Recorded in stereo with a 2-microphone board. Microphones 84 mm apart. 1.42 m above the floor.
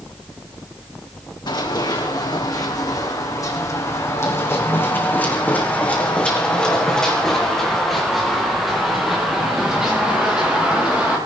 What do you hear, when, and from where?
1.5 s running footsteps: 60° left (ahead or behind), 4 m; by 11.2 s 15° right (ahead or behind), 6.5 m